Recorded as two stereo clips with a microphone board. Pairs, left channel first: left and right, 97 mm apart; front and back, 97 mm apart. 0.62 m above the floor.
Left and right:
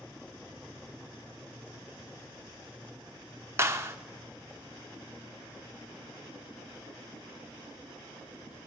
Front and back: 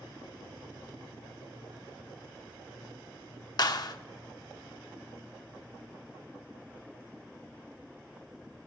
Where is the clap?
35° right, 1.2 m.